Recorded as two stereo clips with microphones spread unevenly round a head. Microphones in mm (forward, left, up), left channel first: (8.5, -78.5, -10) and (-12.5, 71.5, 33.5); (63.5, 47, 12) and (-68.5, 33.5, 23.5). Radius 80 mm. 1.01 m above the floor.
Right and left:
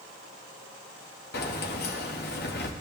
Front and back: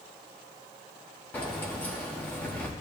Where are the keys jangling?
75° right, 1.5 m.